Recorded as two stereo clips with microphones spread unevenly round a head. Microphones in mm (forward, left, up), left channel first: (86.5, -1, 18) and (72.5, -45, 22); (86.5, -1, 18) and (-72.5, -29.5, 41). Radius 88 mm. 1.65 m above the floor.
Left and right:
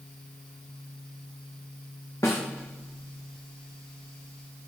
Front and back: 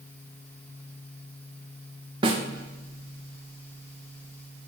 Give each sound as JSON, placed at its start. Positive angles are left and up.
{"t": 2.2, "sound": "a snare drum", "azimuth_deg": 135, "distance_m": 1.2}